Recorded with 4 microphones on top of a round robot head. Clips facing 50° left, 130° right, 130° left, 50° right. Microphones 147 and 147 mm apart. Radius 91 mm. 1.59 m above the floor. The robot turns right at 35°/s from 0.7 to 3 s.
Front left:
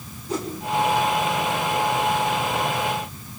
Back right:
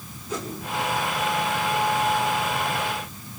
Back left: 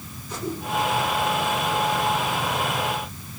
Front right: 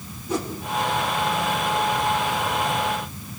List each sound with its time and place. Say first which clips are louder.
0.3 s a whoosh: front left 4 dB, front right 4 dB; 10° right, 5.5 m